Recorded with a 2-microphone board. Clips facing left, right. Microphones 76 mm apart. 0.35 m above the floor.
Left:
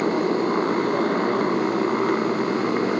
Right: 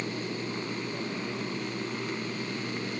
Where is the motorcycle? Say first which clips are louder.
Left 14 dB; 60° left (ahead or behind).